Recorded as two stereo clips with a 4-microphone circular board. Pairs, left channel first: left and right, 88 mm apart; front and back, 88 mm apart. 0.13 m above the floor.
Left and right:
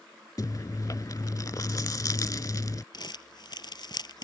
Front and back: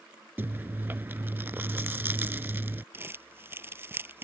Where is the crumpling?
115° left.